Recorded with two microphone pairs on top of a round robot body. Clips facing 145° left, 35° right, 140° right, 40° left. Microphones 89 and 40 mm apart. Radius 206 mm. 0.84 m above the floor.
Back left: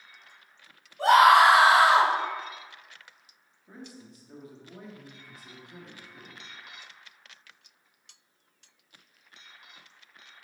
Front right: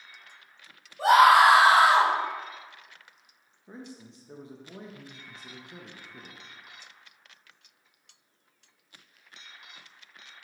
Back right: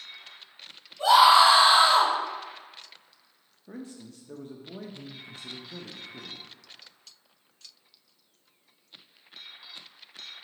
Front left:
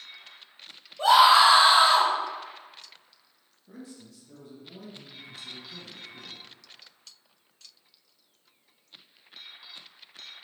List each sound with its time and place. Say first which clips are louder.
1.0 s a scream: even, even; 50° left, 1.4 m; by 2.1 s 45° left, 1.9 m
3.7 s a man speaking: front right 2 dB, back right 4 dB; 100° right, 0.6 m